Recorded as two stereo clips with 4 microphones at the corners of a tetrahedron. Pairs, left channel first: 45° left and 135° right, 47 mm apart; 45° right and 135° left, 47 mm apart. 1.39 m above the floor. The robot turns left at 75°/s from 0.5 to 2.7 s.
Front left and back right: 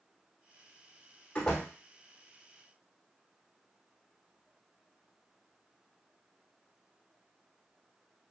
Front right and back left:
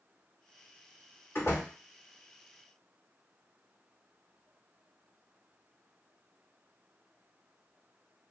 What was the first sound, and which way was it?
A door slam, 15° right.